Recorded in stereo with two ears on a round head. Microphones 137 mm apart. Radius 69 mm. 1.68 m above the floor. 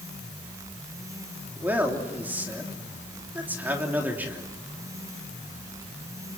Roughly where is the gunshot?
I don't hear a gunshot.